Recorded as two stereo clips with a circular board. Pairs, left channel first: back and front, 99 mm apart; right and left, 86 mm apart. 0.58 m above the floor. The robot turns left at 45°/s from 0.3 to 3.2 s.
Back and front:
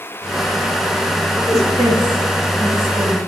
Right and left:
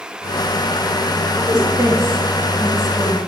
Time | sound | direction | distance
1.4 | a woman speaking | 65° left | 2.5 m